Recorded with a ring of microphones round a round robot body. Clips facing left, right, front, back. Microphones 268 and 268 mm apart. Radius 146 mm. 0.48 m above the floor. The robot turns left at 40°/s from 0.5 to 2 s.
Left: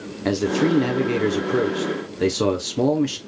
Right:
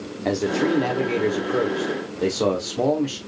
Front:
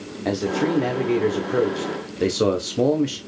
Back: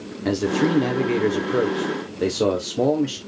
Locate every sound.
0.2 s a man speaking: 135° left, 0.8 m; by 3.2 s 75° left, 0.8 m